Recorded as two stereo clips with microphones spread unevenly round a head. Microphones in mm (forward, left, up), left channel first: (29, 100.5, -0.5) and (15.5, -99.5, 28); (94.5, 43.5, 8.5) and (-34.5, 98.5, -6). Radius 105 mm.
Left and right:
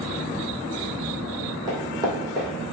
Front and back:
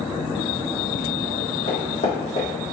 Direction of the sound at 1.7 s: 35° right.